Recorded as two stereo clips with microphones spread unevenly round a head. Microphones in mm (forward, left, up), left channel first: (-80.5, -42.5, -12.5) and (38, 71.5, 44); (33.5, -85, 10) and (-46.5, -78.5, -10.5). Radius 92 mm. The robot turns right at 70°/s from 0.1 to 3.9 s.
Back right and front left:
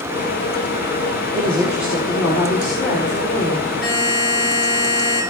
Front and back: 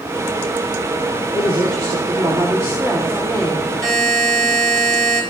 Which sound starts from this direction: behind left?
A woman speaking, at 1.3 s.